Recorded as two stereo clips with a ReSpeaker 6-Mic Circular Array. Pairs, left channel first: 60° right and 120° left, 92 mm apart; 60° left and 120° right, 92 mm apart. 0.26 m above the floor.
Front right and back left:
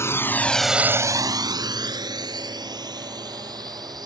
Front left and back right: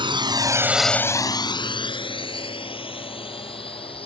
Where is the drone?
120° right; by 4.0 s 75° left.